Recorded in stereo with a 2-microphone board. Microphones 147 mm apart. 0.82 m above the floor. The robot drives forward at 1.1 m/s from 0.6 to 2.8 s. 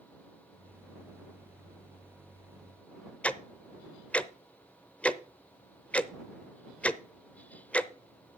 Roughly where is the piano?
No piano in this recording.